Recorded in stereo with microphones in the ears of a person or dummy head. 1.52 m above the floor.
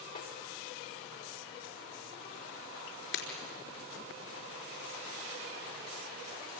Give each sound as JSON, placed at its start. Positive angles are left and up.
{"t": 0.1, "sound": "a snare drum", "side_deg": 45, "distance_m": 5.0}
{"t": 3.1, "sound": "breaking glass", "side_deg": 75, "distance_m": 4.5}